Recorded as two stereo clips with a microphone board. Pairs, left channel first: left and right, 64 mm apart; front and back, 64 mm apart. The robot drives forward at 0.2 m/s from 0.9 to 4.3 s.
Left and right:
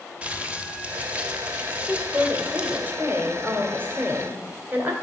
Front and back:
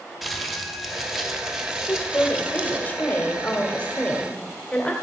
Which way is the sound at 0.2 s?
100° right.